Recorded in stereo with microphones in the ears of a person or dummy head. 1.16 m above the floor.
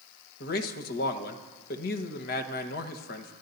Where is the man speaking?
55° left (ahead or behind), 1.2 m.